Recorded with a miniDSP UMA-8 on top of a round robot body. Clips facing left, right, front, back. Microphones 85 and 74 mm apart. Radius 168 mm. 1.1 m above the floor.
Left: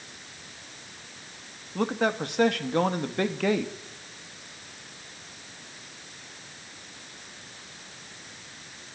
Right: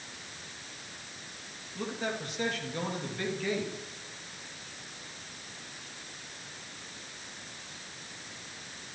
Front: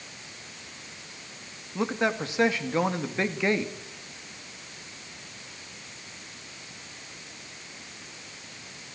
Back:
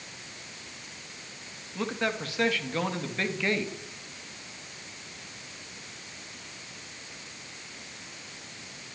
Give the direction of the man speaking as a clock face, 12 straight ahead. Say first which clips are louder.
Left 9 dB, front 4 dB; 10 o'clock.